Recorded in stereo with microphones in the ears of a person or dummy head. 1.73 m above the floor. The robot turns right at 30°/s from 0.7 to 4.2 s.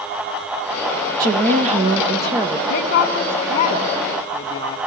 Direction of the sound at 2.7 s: 65° left (ahead or behind).